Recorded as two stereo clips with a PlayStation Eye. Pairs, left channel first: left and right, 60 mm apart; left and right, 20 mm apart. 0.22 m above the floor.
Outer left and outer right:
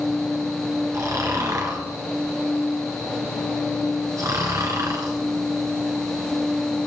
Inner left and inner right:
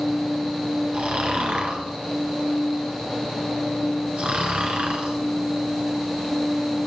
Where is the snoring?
65° right (ahead or behind), 1.9 m.